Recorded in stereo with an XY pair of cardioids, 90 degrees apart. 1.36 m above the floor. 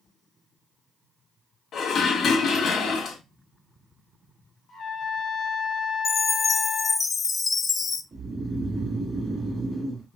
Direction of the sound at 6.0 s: 45° left.